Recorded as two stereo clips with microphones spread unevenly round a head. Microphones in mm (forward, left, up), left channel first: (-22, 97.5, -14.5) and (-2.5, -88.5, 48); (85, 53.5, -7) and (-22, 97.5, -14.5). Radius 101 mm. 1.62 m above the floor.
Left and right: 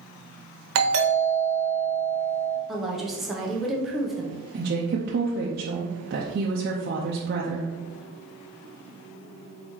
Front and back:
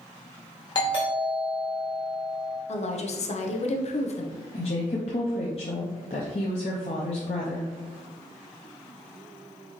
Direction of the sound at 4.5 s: 60° right.